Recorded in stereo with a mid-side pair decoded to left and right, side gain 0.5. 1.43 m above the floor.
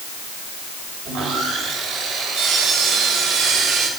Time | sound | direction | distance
1.1 | sawing | 65° right | 7 m